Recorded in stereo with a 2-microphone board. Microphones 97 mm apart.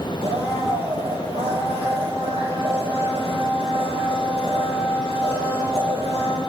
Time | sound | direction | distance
0.2 | a blender | 80° right | 7.5 m